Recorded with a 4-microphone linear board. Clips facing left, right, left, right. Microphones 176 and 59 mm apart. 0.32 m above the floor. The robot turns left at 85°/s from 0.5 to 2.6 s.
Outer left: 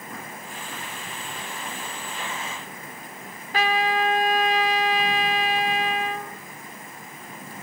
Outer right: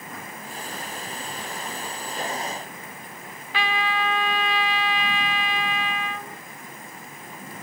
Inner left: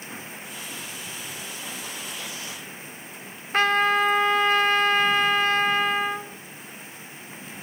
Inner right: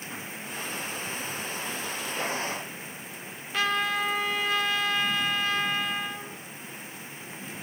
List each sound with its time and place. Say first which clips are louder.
3.5 s a trumpet: outer left 4 dB, inner left 7 dB; 45° left (ahead or behind), 1.1 m